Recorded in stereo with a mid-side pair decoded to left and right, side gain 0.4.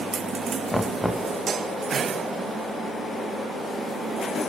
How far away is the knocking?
About 0.7 m.